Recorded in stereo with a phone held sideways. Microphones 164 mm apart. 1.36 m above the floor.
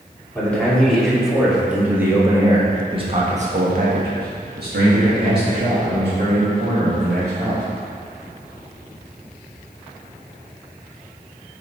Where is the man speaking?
10° left (ahead or behind), 2.5 m; by 7.6 s 60° right (ahead or behind), 3 m.